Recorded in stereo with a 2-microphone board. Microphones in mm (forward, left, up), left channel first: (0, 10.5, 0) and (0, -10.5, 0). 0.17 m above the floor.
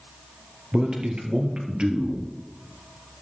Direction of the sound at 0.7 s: 50° right (ahead or behind).